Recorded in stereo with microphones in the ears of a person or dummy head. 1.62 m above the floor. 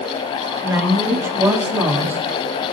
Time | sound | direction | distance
0.6 | a woman speaking | 10° right (ahead or behind) | 3 m